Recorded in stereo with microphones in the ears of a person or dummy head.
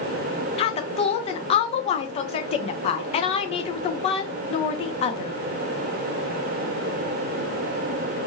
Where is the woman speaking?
35° left (ahead or behind), 0.6 m.